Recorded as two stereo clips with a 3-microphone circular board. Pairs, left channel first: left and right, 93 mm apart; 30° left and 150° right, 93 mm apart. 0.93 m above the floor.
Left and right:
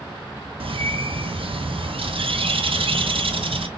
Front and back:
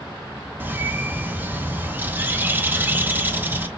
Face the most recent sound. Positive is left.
turn(degrees=-80)